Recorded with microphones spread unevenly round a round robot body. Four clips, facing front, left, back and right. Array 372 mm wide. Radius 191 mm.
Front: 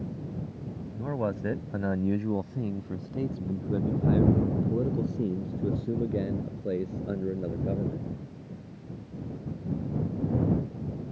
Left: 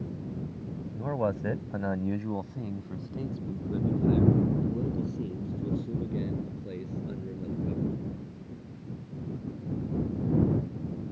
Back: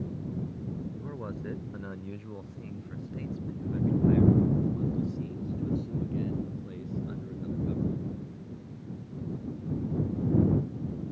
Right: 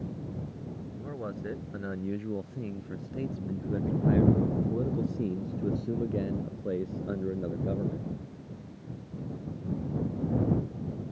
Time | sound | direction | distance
0.9 | a man speaking | 35° left | ?